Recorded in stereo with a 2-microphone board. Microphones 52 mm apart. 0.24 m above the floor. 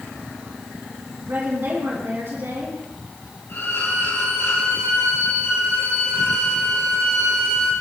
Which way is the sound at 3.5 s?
65° left (ahead or behind).